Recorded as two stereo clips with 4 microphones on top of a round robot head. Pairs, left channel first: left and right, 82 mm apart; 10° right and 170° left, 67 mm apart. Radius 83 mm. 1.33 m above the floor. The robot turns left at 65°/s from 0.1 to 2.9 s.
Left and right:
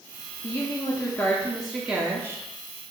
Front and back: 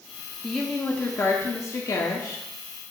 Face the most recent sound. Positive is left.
turn(degrees=-80)